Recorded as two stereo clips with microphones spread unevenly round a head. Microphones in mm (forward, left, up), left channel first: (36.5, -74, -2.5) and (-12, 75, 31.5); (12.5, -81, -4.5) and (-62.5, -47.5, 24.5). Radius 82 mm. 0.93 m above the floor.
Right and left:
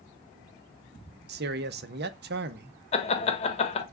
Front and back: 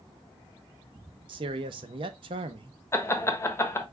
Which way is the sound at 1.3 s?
115° left.